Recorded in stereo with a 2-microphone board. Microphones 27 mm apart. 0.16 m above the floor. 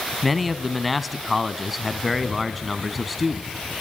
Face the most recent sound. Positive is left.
turn(degrees=-5)  # may be behind; listen again after turning